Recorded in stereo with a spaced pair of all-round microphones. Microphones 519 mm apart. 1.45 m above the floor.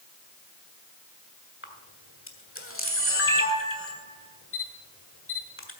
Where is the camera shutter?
25° left (ahead or behind), 1.6 m.